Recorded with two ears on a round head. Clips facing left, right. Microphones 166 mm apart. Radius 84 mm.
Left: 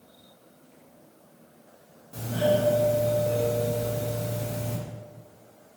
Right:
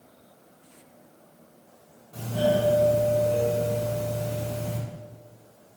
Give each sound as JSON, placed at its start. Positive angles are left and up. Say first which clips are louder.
{"t": 2.1, "sound": "a doorbell", "louder": "even", "side_deg": 30, "distance_m": 2.5}